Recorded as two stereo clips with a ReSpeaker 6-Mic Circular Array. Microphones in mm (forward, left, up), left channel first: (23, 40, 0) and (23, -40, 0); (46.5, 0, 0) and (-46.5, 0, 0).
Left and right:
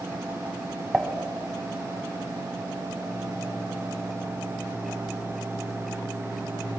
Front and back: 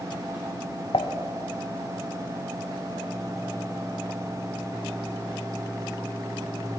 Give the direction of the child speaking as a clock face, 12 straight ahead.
I don't hear a child speaking.